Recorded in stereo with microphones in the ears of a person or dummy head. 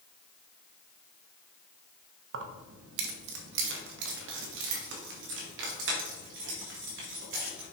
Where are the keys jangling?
65° right (ahead or behind), 1.1 m; by 7.6 s 70° right (ahead or behind), 4.5 m.